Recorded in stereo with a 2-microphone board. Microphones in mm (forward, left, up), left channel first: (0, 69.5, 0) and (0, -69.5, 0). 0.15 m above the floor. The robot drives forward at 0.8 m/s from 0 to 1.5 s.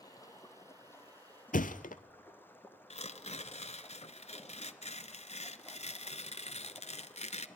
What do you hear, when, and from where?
0.0 s running water: 30° left (ahead or behind), 1.4 m; by 7.6 s 15° left (ahead or behind), 2.5 m
1.5 s a thud: 75° left (ahead or behind), 0.8 m
2.9 s tearing paper: 55° left (ahead or behind), 0.9 m